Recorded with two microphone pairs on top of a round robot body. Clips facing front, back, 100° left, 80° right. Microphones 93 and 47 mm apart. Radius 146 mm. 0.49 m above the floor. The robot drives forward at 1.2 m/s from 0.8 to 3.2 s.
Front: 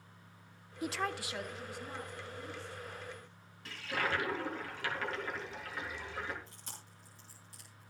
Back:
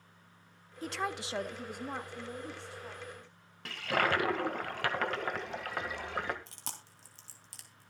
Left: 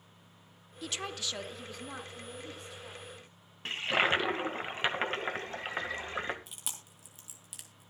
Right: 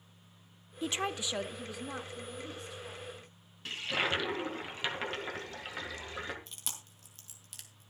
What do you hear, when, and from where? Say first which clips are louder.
0.8 s a woman speaking: even, right 4 dB; 60° right, 0.8 m; by 3.3 s 175° right, 3 m
3.6 s a toilet flushing: back 6 dB, left 4 dB; 150° left, 1.7 m
6.5 s chewing: back 5 dB, even; straight behind, 2.5 m